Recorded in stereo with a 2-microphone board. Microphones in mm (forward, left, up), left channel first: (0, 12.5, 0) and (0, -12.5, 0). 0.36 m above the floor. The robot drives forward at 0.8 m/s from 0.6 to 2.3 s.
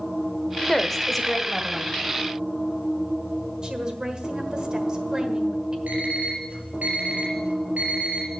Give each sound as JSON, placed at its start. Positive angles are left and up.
{"t": 0.7, "sound": "a woman speaking", "side_deg": 5, "distance_m": 0.8}
{"t": 3.6, "sound": "a woman speaking", "side_deg": -30, "distance_m": 1.4}
{"t": 5.9, "sound": "an alarm clock", "side_deg": -80, "distance_m": 4.0}